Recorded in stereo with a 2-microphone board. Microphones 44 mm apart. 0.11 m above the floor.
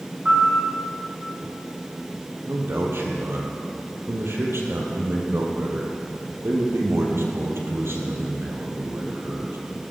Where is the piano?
20° right (ahead or behind), 6 m.